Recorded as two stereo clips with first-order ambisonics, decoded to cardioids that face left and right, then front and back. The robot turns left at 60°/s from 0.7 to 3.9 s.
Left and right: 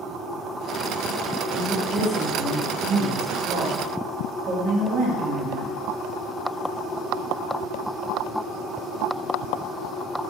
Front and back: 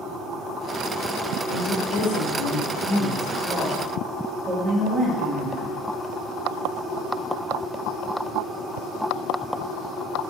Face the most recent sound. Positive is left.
turn(degrees=-125)